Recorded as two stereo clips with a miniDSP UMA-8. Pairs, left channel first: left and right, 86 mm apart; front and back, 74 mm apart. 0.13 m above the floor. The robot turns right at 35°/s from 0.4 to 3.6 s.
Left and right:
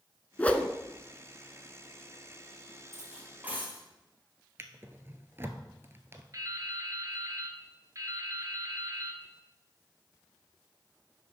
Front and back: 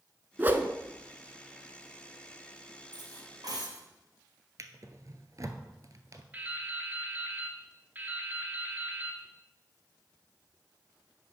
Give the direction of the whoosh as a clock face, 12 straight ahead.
7 o'clock.